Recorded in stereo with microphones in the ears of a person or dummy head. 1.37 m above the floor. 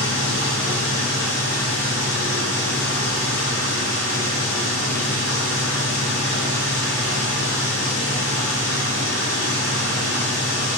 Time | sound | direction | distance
0.0 | an engine running | 75° left (ahead or behind) | 6 m